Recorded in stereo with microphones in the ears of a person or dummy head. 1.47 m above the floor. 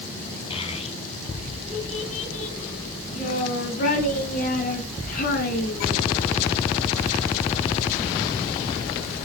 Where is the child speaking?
30° left (ahead or behind), 6.5 m; by 6.0 s 50° left (ahead or behind), 10 m.